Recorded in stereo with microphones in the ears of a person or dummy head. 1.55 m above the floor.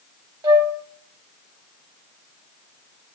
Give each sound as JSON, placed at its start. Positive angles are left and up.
{"t": 0.4, "sound": "a flute", "side_deg": -25, "distance_m": 1.0}